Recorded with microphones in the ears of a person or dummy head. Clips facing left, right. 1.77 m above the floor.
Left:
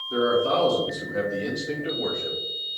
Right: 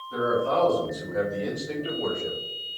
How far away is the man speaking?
About 1.2 m.